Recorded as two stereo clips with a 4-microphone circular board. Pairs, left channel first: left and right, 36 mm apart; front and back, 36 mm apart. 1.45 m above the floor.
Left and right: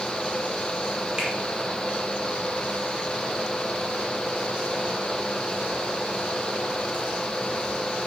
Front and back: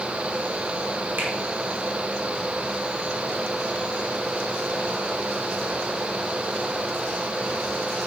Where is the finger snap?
160° right, 3 m.